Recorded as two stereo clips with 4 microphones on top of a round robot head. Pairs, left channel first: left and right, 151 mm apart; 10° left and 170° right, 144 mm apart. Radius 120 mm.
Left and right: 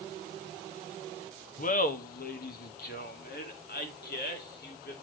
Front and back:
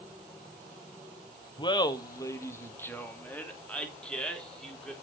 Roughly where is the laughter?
Ahead left.